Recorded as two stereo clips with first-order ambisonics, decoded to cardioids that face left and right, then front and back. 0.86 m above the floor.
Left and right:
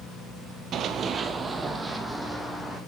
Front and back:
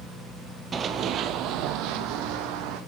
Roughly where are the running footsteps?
Behind right.